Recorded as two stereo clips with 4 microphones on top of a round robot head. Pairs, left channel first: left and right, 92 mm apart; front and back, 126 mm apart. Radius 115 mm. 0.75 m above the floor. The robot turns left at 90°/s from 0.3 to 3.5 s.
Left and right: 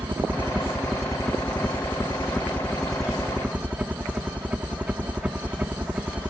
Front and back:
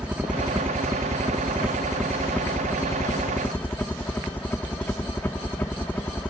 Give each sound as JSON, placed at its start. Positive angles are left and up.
{"t": 0.0, "sound": "a helicopter", "azimuth_deg": -115}